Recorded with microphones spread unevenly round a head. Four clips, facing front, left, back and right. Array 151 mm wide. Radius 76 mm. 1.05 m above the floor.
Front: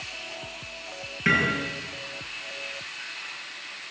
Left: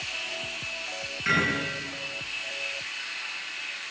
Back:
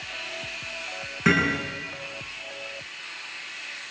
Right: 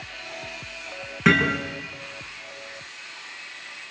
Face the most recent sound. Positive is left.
turn(degrees=-115)